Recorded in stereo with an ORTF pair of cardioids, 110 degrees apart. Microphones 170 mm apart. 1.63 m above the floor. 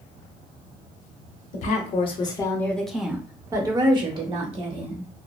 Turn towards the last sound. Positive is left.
turn(degrees=-45)